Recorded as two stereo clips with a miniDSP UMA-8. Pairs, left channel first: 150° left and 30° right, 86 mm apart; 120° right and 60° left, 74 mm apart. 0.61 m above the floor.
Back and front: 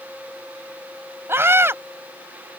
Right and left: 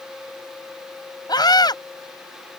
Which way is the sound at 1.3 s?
95° right.